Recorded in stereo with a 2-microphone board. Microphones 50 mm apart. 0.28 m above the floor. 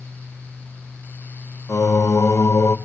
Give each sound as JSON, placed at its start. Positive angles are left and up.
{"t": 1.7, "sound": "singing", "side_deg": 85, "distance_m": 1.6}